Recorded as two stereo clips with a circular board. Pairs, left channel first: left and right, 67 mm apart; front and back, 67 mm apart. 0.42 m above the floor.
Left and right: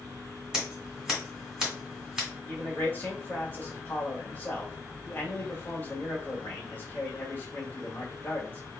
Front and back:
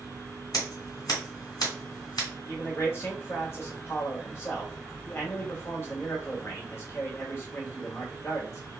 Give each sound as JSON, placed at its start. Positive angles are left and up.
{"t": 0.5, "sound": "scissors", "azimuth_deg": -10, "distance_m": 2.5}
{"t": 2.5, "sound": "a man speaking", "azimuth_deg": 35, "distance_m": 1.5}